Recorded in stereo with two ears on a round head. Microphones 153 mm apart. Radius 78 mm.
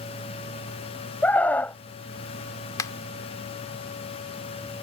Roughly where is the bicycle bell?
No bicycle bell in this recording.